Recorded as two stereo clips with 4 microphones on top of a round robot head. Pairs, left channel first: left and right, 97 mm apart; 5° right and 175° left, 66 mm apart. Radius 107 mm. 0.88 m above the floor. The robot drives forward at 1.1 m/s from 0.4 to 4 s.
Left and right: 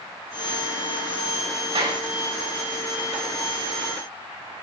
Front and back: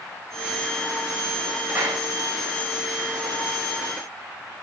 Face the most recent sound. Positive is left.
turn(degrees=-140)